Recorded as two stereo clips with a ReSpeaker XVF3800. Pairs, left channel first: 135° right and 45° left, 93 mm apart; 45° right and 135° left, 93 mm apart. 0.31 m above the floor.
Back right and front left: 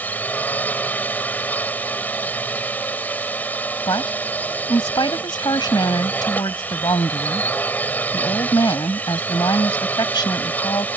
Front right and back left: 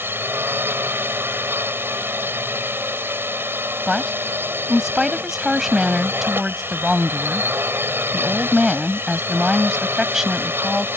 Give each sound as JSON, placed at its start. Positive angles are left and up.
{"t": 0.0, "sound": "a drone", "azimuth_deg": 175}
{"t": 3.9, "sound": "a woman speaking", "azimuth_deg": -140}